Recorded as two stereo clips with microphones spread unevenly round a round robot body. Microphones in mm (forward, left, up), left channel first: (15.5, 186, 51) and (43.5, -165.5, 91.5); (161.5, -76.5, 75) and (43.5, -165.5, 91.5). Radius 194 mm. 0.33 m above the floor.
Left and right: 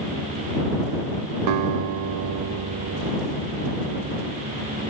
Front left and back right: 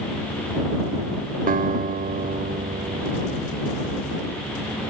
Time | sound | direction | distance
1.5 | a guitar | 125° right | ?